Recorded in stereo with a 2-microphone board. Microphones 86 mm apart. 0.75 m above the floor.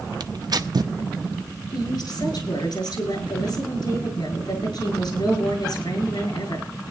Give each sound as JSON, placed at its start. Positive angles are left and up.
{"t": 0.2, "sound": "tearing paper", "side_deg": -55, "distance_m": 0.7}
{"t": 1.7, "sound": "a woman speaking", "side_deg": 60, "distance_m": 6.5}